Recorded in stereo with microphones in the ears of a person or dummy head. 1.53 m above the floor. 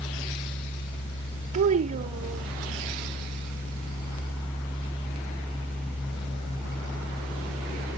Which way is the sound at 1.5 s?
35° right (ahead or behind).